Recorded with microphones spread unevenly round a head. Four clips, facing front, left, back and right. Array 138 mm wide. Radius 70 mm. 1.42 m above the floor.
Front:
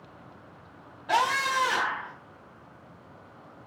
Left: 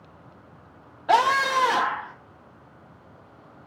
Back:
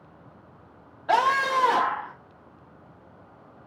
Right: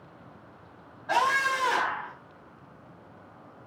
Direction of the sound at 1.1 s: 100° left.